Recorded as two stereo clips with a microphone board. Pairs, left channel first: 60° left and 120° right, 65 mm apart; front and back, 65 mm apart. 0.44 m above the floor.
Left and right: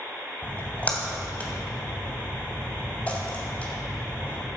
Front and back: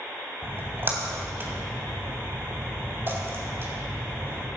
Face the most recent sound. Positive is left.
turn(degrees=130)